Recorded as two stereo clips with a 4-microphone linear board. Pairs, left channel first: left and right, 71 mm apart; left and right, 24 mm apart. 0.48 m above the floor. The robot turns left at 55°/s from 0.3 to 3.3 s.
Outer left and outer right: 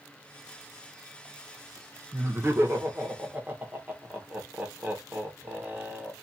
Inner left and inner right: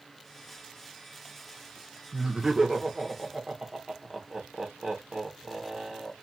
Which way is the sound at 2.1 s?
40° right (ahead or behind).